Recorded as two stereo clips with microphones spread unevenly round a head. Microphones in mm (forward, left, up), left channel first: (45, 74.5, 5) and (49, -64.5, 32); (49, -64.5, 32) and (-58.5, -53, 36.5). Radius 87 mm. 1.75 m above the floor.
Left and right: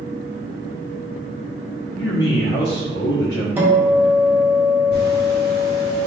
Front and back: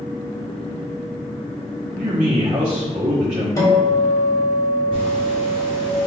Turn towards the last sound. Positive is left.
turn(degrees=120)